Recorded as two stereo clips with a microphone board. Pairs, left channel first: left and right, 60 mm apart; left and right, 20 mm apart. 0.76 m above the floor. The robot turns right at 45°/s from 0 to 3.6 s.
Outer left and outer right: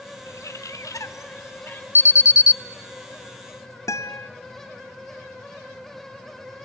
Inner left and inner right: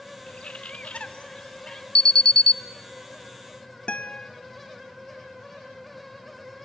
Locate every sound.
0.3 s a bird: 70° left, 1.1 m; by 1.9 s 140° left, 1.1 m
1.9 s an alarm: 45° left (ahead or behind), 0.5 m; by 2.6 s 65° left (ahead or behind), 0.5 m
3.9 s a guitar: 70° left (ahead or behind), 0.8 m